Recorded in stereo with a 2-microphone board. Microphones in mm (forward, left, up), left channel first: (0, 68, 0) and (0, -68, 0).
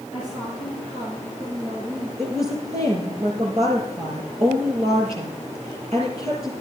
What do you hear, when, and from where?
0.1 s a woman speaking: 25° right (ahead or behind), 6 m; by 2.1 s 35° right (ahead or behind), 6 m
2.2 s a woman speaking: 60° right (ahead or behind), 6.5 m